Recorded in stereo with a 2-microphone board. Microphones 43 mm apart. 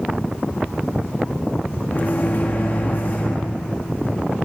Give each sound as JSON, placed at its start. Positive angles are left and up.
{"t": 1.9, "sound": "a microwave", "side_deg": 50, "distance_m": 1.3}